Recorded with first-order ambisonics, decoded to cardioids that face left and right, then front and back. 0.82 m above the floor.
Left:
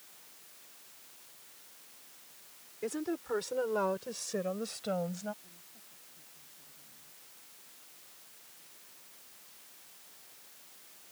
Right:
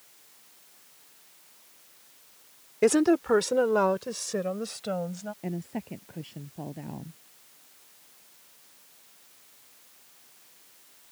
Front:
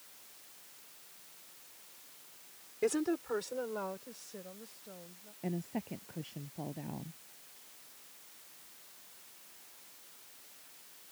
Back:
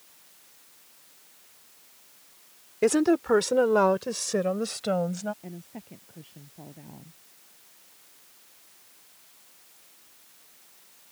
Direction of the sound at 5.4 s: 75° right.